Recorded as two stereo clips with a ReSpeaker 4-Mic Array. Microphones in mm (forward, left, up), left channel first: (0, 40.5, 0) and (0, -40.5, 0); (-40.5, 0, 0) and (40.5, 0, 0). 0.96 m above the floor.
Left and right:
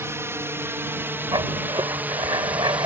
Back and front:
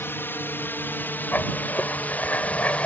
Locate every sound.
0.0 s a drone: 130° right; by 2.9 s 135° right
1.3 s writing: 110° right